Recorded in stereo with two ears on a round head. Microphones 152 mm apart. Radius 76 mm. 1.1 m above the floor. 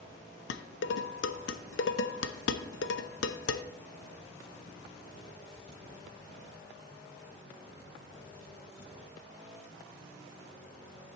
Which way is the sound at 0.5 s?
75° left (ahead or behind).